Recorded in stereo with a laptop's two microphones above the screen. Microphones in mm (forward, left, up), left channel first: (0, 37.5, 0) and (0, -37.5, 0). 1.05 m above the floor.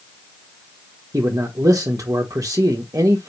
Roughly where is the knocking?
I don't hear knocking.